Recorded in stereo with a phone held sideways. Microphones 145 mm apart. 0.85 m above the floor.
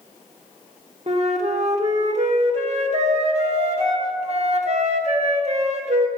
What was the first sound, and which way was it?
A flute, 50° right (ahead or behind).